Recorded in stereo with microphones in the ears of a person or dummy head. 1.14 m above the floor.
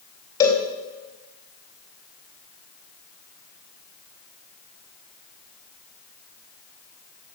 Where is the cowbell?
15° left (ahead or behind), 3.5 m.